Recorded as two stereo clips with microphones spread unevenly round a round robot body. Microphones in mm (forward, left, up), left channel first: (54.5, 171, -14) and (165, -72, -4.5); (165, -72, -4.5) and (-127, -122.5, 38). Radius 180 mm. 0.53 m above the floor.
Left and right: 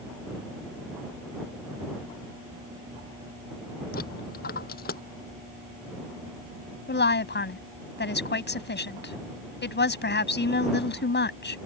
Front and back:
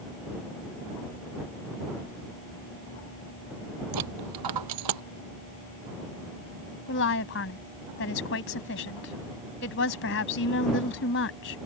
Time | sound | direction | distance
3.9 | a dropped coin | straight behind | ?
6.9 | a woman speaking | 65° left | ?